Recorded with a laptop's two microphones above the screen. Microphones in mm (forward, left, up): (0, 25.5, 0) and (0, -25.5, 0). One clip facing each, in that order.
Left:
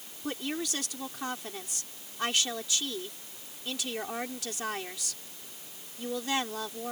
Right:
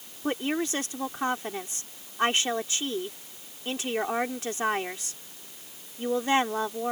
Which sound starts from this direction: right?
A woman speaking, at 0.2 s.